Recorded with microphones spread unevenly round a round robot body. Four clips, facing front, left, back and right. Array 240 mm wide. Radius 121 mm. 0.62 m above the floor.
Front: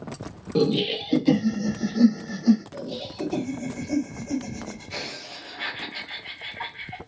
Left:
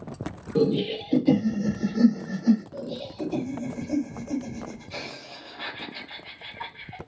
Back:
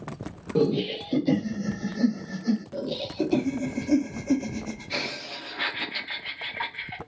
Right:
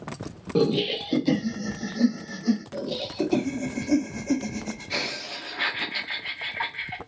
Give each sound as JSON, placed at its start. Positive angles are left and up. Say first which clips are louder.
{"t": 0.6, "sound": "laughter", "louder": "even, front 1 dB", "azimuth_deg": -90, "distance_m": 1.0}
{"t": 2.7, "sound": "laughter", "louder": "right 4 dB, back 4 dB", "azimuth_deg": -130, "distance_m": 0.9}